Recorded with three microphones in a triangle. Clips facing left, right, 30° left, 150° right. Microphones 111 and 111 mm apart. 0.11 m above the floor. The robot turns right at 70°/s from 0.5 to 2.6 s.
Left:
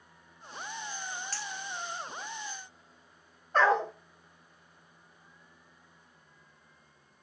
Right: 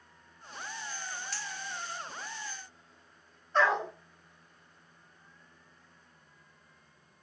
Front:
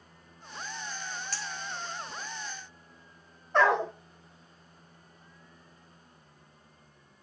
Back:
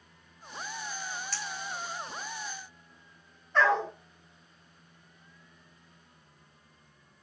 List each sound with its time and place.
1.3 s a clink: 60° left, 1.3 m; by 2.3 s 130° left, 1.3 m
3.5 s a dog barking: 45° left, 1.1 m